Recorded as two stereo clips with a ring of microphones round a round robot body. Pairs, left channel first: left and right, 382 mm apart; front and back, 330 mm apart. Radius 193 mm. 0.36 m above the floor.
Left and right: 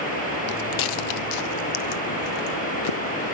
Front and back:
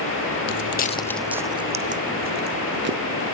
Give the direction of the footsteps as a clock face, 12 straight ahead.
11 o'clock.